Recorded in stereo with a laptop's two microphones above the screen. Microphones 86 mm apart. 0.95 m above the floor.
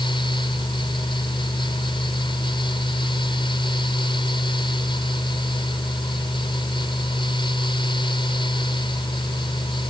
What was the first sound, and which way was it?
A fan, 70° left (ahead or behind).